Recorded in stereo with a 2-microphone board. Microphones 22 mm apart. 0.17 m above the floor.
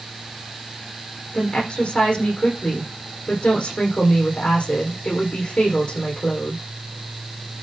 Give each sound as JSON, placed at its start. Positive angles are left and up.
{"t": 1.3, "sound": "a woman speaking", "side_deg": 50, "distance_m": 8.0}